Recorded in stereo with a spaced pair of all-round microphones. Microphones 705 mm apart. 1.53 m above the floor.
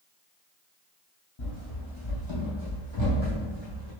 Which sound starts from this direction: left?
Running footsteps, at 1.4 s.